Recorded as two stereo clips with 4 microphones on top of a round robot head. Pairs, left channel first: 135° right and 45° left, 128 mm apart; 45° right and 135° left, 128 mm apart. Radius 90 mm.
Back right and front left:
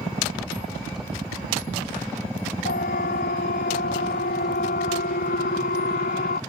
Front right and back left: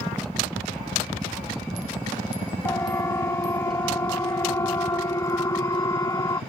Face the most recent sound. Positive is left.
turn(degrees=-110)